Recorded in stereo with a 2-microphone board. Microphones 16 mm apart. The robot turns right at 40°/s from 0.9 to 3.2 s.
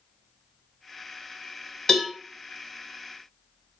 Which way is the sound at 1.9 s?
35° left (ahead or behind).